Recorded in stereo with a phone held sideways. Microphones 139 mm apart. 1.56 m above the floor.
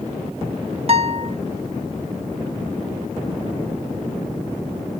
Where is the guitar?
45° right (ahead or behind), 0.7 m.